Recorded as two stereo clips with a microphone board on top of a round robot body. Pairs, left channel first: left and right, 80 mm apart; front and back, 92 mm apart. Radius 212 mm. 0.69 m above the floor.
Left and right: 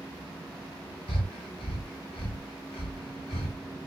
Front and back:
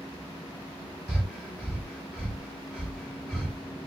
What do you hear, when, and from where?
1.1 s breathing: 90° left, 0.8 m